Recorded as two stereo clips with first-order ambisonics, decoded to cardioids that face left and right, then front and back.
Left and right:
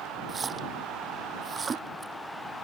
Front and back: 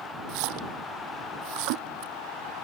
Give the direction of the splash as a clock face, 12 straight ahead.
5 o'clock.